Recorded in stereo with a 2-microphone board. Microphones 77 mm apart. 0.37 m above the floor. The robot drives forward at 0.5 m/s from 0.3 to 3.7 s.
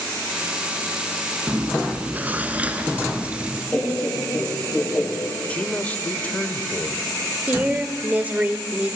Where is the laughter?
10° left (ahead or behind), 6.5 m.